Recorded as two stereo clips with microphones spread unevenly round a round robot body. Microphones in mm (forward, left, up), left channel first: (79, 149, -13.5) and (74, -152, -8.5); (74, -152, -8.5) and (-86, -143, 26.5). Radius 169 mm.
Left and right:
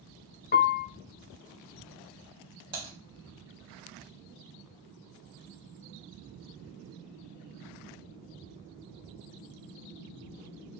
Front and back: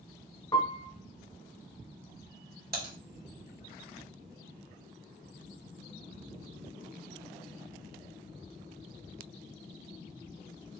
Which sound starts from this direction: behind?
Typing on a keyboard, at 2.7 s.